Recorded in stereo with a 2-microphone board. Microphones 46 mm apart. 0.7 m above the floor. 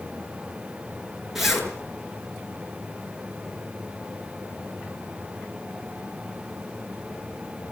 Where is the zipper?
5° right (ahead or behind), 7 m.